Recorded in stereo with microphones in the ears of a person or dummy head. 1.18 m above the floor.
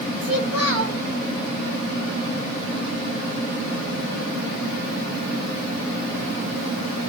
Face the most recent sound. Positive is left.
turn(degrees=-65)  # may be behind; listen again after turning